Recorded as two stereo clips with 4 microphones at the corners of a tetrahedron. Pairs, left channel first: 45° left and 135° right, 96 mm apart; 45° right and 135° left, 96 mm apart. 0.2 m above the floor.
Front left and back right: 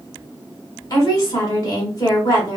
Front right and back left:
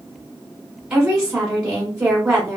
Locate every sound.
0.9 s a woman speaking: 60° left, 1.3 m